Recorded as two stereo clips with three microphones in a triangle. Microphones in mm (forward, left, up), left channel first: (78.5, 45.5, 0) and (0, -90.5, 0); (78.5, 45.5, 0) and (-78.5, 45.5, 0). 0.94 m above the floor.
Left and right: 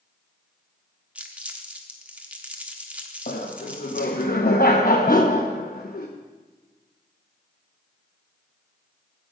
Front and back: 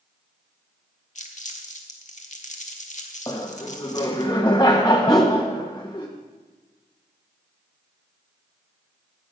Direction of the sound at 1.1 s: 40° right.